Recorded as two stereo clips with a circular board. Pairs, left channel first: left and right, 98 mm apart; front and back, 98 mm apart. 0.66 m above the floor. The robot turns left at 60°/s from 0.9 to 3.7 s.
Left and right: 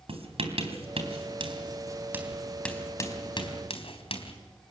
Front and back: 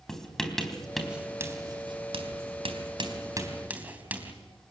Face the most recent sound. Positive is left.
turn(degrees=105)